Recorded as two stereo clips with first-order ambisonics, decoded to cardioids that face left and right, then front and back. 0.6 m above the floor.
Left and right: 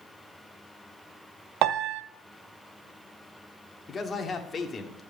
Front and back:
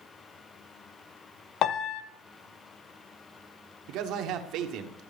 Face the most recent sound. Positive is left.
turn(degrees=155)